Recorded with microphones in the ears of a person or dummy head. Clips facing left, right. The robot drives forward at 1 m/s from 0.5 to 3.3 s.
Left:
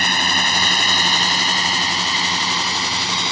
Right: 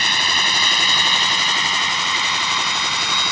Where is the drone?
40° left (ahead or behind); by 3.3 s 25° left (ahead or behind).